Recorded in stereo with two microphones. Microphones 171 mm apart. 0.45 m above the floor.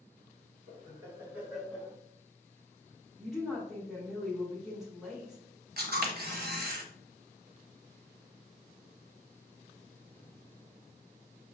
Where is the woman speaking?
Centre (ahead or behind), 1.0 m.